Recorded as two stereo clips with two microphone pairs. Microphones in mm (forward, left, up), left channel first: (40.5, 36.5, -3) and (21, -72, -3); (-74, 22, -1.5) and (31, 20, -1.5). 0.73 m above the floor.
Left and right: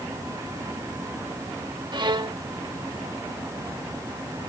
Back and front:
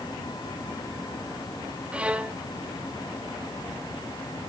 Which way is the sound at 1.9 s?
75° right.